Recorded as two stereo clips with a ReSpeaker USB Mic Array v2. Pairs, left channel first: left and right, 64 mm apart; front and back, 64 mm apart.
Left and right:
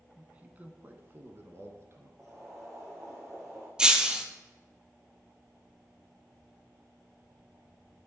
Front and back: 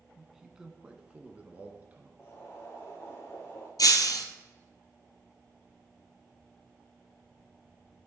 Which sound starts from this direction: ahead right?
Boiling, at 2.2 s.